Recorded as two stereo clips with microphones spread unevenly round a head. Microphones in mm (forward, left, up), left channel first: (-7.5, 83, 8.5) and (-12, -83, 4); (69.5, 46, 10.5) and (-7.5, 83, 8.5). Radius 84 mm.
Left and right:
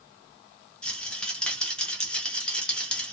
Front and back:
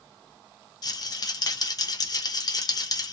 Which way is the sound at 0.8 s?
5° left.